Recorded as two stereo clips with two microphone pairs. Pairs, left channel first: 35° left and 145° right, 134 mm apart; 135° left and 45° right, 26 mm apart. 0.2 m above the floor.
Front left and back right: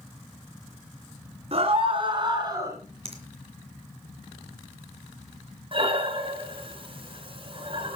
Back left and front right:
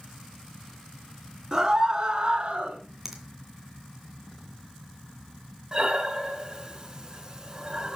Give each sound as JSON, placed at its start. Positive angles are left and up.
{"t": 1.5, "sound": "a scream", "azimuth_deg": -110, "distance_m": 2.5}
{"t": 3.0, "sound": "a finger snap", "azimuth_deg": -125, "distance_m": 2.5}
{"t": 5.7, "sound": "breathing", "azimuth_deg": -105, "distance_m": 2.0}